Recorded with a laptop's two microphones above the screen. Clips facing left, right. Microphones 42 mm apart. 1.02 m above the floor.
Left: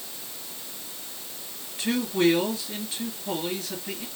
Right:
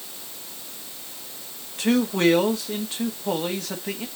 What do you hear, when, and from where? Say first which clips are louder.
1.8 s a man speaking: right 3 dB; 60° right (ahead or behind), 1.6 m